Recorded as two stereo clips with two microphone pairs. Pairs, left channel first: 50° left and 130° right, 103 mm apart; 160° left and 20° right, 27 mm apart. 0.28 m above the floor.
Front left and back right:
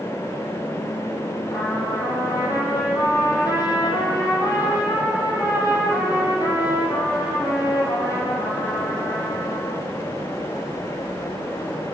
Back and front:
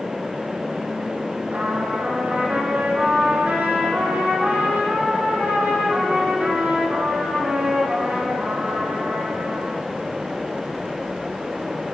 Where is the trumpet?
10° right, 8 m.